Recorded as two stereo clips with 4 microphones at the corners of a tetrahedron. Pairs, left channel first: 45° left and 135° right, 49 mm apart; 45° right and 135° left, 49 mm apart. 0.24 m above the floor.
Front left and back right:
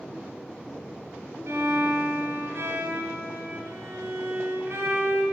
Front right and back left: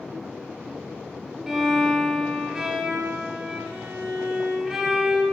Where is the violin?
145° right, 2 m.